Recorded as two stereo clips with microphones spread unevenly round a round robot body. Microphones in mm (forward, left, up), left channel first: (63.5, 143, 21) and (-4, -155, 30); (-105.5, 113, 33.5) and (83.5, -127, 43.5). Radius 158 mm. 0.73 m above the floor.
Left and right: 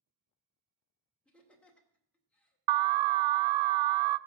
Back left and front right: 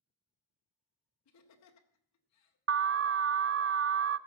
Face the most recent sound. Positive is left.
turn(degrees=-100)